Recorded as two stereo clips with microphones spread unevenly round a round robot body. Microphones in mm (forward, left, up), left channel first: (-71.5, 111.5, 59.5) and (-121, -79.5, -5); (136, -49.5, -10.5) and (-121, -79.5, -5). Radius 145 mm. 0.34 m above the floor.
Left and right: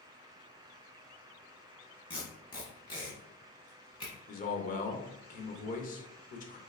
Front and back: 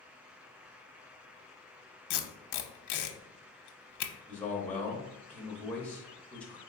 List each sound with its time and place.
2.1 s tape being pulled: straight ahead, 0.7 m
4.3 s a man speaking: 75° left, 0.8 m